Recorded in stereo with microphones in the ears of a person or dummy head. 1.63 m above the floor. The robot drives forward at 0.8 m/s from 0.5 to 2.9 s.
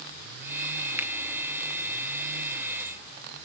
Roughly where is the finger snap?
Centre.